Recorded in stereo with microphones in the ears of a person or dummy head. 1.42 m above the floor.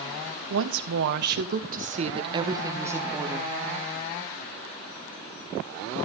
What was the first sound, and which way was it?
A woman speaking, 70° right (ahead or behind).